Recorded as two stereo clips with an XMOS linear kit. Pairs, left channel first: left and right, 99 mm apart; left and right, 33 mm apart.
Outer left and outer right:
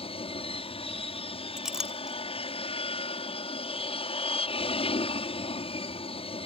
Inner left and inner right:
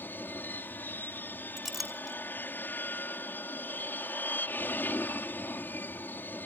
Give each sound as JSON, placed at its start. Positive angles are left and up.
{"t": 0.0, "sound": "an aircraft", "side_deg": 70}
{"t": 1.6, "sound": "a clink", "side_deg": -5}